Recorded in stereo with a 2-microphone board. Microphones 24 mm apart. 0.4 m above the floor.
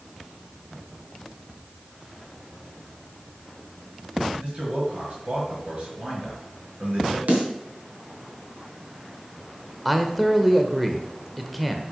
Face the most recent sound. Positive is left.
turn(degrees=0)  # may be behind; listen again after turning